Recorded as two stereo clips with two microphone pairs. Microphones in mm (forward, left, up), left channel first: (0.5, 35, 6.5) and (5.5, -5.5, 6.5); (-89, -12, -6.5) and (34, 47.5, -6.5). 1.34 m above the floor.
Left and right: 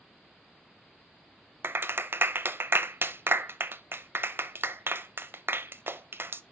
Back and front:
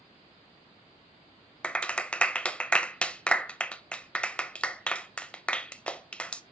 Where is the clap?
75° right, 0.5 m.